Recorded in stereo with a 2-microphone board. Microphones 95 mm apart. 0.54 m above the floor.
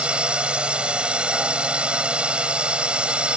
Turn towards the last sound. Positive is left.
turn(degrees=-10)  # may be behind; listen again after turning